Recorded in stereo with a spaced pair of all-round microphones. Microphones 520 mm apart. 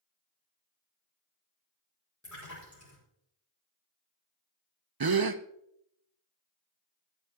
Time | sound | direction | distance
2.2 | a splash | 30° left (ahead or behind) | 4.5 m
5.0 | a gasp | 45° right (ahead or behind) | 0.6 m